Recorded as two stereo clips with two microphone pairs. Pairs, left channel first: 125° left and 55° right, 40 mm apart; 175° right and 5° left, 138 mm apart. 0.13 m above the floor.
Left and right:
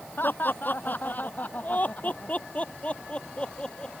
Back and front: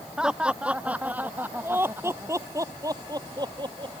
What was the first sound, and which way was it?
Laughter, 90° left.